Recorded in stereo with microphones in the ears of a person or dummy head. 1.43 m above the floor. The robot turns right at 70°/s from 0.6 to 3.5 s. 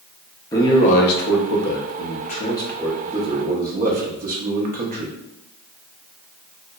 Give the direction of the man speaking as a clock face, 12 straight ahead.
12 o'clock.